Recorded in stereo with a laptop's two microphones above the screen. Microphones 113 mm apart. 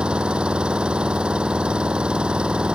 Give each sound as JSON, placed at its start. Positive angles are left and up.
{"t": 0.0, "sound": "an engine running", "side_deg": -10}